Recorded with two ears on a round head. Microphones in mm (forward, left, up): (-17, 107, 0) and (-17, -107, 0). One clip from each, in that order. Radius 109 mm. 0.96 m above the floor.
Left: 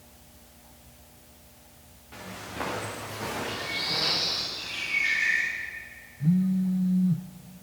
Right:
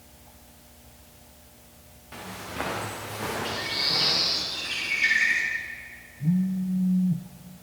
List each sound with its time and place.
2.1 s footsteps: 30° right (ahead or behind), 7 m; by 4.5 s centre (ahead or behind), 6.5 m
3.5 s a bird: 70° right (ahead or behind), 10 m
6.2 s a phone buzzing: 50° left (ahead or behind), 1.1 m